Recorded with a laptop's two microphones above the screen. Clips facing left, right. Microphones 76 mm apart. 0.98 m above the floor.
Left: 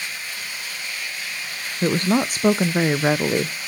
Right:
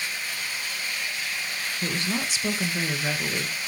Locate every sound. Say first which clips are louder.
1.8 s a woman speaking: left 11 dB; 45° left (ahead or behind), 0.7 m